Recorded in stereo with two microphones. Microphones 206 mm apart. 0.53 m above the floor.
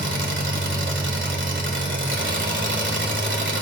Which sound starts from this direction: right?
An engine running, at 0.0 s.